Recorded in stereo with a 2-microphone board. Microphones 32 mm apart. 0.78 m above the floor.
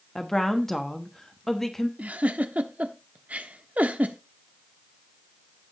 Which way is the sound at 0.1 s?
15° left (ahead or behind).